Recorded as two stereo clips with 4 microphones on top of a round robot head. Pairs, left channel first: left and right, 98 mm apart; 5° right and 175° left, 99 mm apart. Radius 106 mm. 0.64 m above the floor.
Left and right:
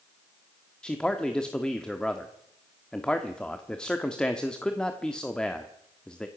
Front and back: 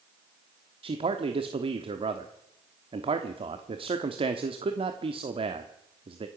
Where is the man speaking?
170° left, 1.2 m.